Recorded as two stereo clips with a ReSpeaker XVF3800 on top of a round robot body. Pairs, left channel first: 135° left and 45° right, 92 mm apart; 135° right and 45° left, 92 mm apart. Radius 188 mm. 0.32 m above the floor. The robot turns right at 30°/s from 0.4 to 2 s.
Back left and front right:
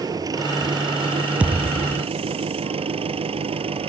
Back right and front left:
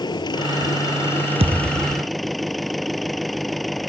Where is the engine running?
95° right; by 3.9 s 45° right.